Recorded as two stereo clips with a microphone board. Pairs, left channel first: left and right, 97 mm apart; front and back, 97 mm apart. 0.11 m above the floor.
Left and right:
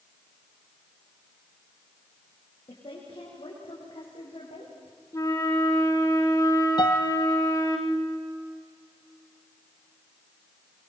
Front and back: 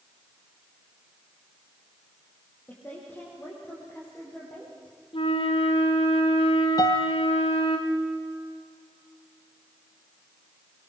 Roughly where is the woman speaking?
Ahead left.